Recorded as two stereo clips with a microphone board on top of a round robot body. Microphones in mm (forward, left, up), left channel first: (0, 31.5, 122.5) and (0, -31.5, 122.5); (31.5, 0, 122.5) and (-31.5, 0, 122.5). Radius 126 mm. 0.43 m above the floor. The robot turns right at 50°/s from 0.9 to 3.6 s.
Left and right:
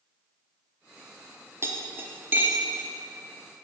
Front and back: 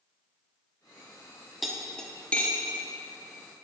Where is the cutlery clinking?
95° right, 0.6 m; by 2.9 s 35° right, 0.6 m.